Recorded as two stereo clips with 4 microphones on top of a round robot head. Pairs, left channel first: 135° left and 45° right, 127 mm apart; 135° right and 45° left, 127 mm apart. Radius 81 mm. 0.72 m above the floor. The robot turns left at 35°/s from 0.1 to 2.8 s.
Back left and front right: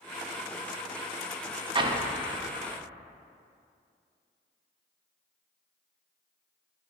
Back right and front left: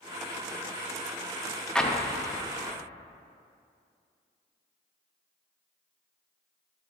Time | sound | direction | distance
1.8 | an explosion | 50° right | 0.8 m